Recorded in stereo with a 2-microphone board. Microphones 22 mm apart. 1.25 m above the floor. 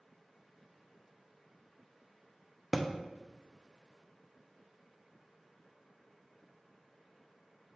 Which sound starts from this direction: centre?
A thud, at 2.7 s.